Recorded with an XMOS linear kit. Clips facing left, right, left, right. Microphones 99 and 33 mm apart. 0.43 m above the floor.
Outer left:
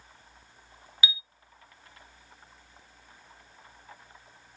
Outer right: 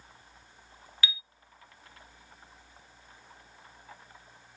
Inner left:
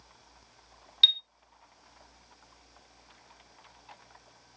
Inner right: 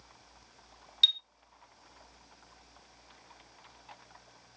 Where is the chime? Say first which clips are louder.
Outer left 2 dB, inner left 3 dB; 15° left (ahead or behind), 0.6 m.